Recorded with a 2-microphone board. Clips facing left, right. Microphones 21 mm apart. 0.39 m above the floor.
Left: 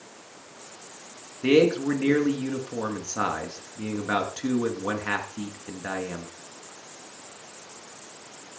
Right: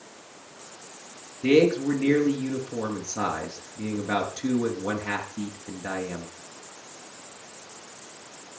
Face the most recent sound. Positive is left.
turn(degrees=50)  # may be behind; listen again after turning